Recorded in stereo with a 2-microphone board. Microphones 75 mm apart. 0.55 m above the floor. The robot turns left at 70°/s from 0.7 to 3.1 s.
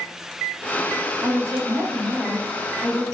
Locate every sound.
1.2 s a woman speaking: 105° right, 0.9 m; by 3.0 s 130° left, 0.9 m